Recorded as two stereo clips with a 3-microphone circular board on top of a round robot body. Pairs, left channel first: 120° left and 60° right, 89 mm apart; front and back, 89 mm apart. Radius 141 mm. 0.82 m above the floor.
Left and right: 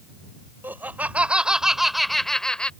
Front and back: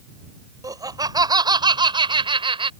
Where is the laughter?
130° right; by 2.7 s 160° right.